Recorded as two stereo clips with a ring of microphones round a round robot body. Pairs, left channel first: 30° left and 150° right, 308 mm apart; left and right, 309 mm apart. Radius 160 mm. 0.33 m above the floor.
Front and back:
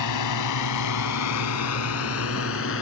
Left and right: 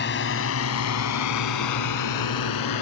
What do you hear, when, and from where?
0.0 s a drone: 35° left; by 2.8 s 80° left